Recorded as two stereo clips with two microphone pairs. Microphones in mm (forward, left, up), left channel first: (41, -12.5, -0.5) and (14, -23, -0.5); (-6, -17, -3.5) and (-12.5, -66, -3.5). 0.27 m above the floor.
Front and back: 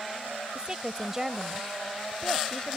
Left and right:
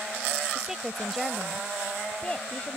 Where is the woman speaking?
160° right; by 2.8 s 40° left.